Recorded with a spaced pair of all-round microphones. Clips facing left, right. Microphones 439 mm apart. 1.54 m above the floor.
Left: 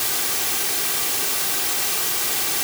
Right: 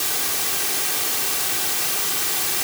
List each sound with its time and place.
Only background noise.